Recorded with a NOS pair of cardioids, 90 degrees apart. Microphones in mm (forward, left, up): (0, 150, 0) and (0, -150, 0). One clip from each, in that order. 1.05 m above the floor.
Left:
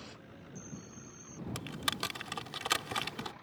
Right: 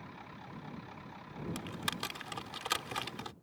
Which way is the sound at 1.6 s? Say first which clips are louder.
Left 3 dB; 20° left.